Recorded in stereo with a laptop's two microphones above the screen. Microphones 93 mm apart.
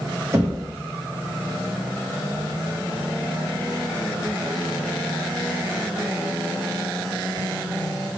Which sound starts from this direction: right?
Knocking, at 0.3 s.